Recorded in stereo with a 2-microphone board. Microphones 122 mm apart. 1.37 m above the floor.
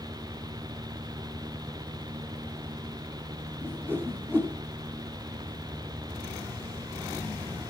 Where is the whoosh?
15° right (ahead or behind), 4 m.